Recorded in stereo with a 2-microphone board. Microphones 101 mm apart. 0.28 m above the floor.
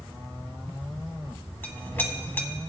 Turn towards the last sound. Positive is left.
turn(degrees=20)  # may be behind; listen again after turning